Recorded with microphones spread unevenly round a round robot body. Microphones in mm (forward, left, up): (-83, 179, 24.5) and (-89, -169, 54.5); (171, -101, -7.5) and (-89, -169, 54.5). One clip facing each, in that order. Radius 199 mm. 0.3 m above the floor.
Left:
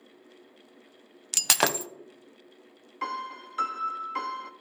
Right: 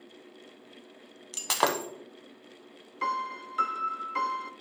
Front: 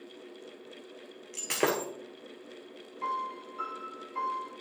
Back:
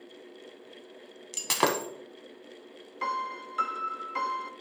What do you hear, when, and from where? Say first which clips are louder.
1.3 s breaking glass: even, even; 135° left, 0.6 m
3.0 s a piano: right 2 dB, back 2 dB; 175° left, 0.8 m